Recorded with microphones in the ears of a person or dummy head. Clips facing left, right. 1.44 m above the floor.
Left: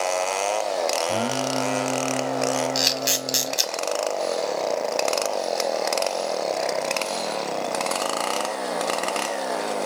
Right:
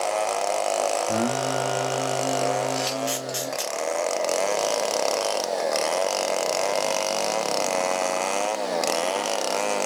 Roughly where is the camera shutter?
Left.